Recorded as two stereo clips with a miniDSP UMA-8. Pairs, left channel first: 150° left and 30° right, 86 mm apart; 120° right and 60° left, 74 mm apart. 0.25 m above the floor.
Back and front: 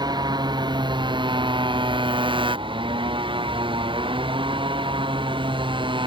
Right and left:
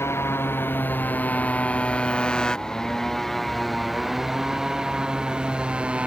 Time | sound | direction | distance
0.0 | a motorcycle | 65° right | ?